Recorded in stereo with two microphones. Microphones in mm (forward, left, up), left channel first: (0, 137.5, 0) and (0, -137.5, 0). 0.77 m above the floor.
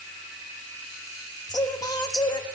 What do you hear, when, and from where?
1.5 s singing: 15° left (ahead or behind), 0.5 m